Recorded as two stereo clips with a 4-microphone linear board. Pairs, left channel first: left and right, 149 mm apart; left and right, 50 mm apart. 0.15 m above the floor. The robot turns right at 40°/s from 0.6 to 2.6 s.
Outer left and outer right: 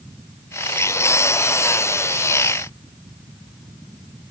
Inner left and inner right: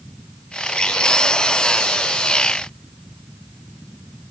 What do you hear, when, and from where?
Only background noise.